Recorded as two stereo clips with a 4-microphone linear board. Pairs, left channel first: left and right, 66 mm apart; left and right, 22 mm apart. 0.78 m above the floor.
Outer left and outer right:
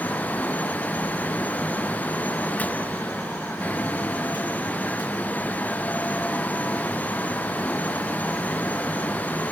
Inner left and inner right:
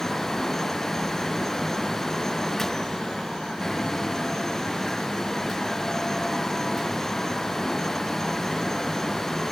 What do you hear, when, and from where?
Only background noise.